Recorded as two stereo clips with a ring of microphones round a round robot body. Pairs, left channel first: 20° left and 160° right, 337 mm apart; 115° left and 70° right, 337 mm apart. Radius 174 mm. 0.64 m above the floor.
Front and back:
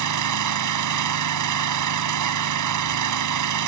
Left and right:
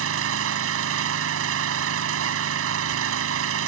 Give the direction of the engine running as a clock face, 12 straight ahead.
4 o'clock.